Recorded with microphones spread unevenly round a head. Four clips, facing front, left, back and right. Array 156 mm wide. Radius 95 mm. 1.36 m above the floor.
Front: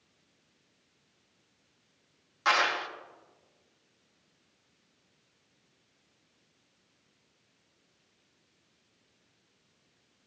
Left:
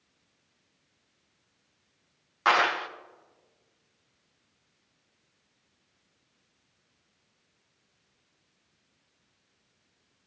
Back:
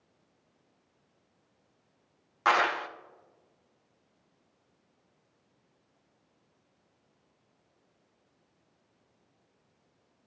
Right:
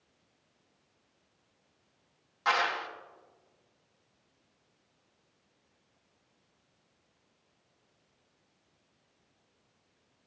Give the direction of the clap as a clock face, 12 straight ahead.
8 o'clock.